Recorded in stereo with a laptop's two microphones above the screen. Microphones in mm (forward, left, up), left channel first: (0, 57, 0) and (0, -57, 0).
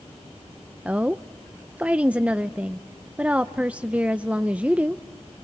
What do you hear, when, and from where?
0.8 s a woman speaking: 10° right (ahead or behind), 0.5 m